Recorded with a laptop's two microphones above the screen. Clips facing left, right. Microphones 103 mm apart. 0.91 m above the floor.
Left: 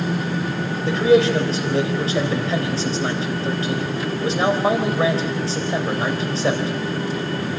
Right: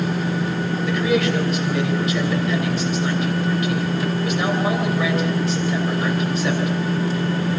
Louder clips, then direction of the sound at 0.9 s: Left 6 dB; 30° left (ahead or behind).